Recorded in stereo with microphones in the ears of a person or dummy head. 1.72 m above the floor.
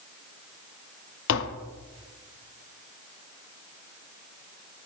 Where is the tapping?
70° left (ahead or behind), 0.6 m.